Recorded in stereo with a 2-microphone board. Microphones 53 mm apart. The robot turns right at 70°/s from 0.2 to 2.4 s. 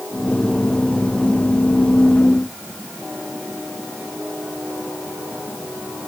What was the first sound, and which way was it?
Only background noise.